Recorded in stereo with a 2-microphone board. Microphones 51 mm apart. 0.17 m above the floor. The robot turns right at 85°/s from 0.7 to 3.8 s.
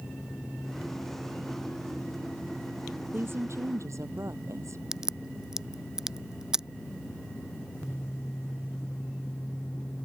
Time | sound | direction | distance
3.1 | a woman speaking | 140° right | ?
4.9 | a crack | 15° right (ahead or behind) | ?